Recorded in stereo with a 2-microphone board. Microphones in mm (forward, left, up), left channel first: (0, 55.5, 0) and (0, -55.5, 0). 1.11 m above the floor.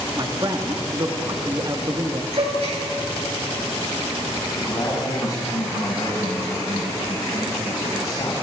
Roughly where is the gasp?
Right.